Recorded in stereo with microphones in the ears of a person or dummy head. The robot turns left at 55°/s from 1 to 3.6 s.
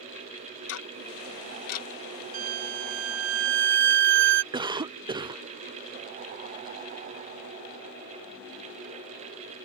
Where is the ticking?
75° left (ahead or behind); by 1.9 s 50° left (ahead or behind).